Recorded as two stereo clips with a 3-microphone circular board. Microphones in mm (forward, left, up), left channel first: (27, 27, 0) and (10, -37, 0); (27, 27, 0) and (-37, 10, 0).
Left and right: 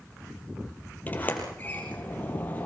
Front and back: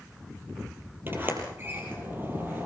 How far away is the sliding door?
About 4 m.